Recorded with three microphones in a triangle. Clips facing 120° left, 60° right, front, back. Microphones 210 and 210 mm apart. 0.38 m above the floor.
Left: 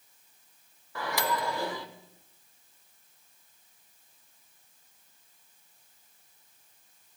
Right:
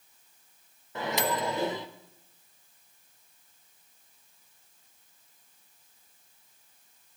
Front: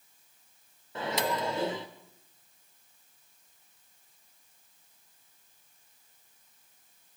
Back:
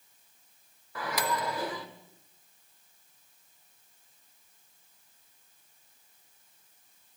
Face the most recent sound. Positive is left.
turn(degrees=-25)